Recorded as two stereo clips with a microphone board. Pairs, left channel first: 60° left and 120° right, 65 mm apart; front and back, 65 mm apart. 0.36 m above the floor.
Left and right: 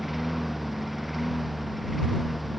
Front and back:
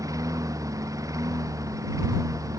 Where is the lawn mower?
155° left; by 2.6 s 150° left.